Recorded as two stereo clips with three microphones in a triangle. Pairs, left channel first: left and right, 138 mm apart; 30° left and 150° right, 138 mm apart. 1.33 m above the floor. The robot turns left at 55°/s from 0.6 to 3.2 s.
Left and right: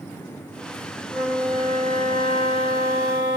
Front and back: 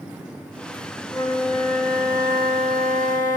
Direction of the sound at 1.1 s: 30° right.